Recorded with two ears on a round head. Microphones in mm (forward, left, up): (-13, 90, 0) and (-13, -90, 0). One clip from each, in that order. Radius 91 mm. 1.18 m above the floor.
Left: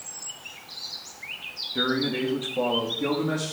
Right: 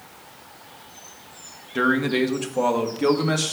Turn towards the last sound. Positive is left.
turn(degrees=-50)  # may be behind; listen again after turning